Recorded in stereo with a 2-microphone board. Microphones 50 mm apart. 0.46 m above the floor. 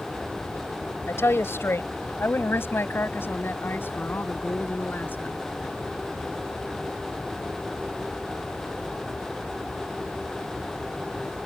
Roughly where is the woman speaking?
Left.